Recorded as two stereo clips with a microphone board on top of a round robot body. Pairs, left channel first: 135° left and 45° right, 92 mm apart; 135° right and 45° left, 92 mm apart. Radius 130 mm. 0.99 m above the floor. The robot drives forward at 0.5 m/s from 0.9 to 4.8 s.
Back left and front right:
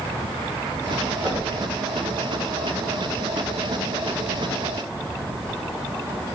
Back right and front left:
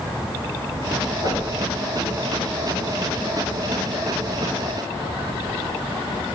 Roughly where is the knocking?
Behind right.